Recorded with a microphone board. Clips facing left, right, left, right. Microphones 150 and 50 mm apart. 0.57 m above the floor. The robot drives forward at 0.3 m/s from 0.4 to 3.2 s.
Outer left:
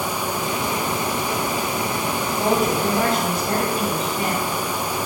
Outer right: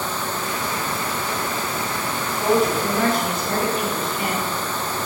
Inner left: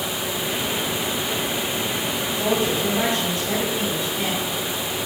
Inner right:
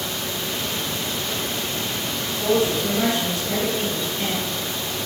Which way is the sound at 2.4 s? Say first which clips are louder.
Outer right 2 dB, inner right 2 dB; 30° left (ahead or behind).